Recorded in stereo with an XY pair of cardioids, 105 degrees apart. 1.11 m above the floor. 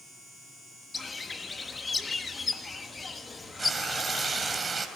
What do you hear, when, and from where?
0.9 s a bird: 25° left, 1.2 m
3.6 s frying: 30° right, 2.5 m